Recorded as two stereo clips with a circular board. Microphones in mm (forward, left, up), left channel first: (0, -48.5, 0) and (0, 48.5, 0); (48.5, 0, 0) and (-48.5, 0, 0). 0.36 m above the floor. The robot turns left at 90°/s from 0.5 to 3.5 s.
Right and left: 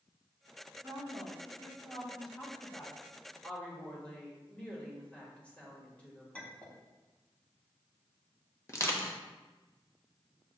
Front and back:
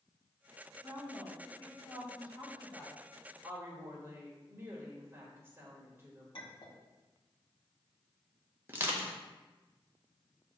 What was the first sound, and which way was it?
A woman speaking, 140° left.